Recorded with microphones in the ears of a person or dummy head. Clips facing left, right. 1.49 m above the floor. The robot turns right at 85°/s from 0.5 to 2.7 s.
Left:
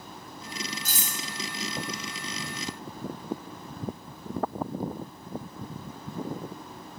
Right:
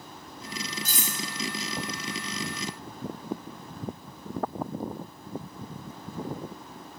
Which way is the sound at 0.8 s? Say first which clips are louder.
Right 2 dB; 45° right (ahead or behind).